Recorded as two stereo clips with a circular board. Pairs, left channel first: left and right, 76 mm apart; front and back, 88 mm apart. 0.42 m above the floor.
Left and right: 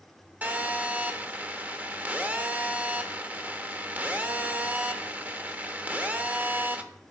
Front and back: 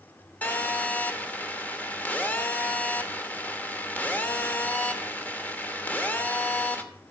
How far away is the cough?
No cough in this recording.